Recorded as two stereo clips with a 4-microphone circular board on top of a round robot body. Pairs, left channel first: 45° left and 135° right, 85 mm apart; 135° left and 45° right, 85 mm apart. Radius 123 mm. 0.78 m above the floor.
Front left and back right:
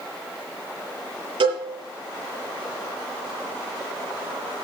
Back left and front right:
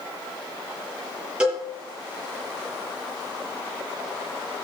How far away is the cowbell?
About 8 m.